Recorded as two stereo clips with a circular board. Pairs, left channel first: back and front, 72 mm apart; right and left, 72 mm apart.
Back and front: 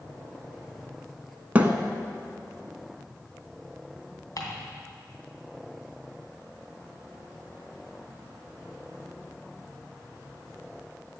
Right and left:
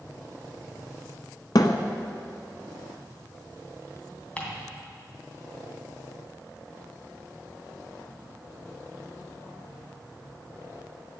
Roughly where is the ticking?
Behind.